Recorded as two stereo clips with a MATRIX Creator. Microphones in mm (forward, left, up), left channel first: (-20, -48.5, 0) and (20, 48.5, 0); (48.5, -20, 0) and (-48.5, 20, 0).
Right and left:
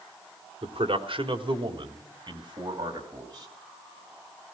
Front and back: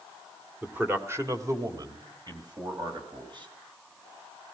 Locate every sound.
0.6 s a man speaking: 85° left, 1.7 m; by 3.5 s 115° left, 4.5 m